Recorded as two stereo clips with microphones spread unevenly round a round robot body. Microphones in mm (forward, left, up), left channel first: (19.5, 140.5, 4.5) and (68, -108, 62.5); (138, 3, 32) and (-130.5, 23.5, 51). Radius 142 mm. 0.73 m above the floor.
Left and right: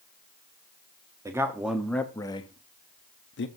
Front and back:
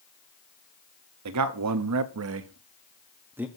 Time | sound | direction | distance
1.2 | a man speaking | 165° right | 1.0 m